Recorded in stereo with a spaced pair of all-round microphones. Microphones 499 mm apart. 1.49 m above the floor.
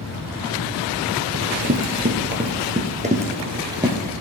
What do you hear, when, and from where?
1.3 s running footsteps: 25° right (ahead or behind), 1.8 m; by 4.1 s 5° right (ahead or behind), 2.5 m